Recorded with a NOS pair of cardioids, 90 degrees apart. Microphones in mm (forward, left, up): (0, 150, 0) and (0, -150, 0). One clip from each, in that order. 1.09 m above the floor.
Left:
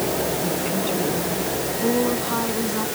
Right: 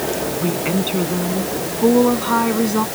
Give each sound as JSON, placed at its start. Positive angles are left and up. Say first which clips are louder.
{"t": 0.4, "sound": "a woman speaking", "louder": "right 3 dB", "azimuth_deg": -60}